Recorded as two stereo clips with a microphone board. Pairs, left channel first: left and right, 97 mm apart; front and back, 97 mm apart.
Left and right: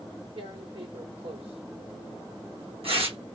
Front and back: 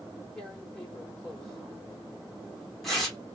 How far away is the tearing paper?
About 0.9 m.